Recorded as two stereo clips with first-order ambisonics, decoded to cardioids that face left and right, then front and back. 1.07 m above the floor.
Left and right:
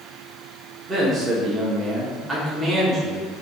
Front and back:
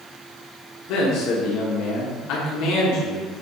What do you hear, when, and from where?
0.9 s a man speaking: 20° right, 1.3 m